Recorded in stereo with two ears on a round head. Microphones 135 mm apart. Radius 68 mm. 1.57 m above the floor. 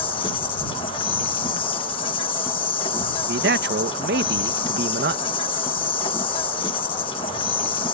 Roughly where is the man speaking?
Right.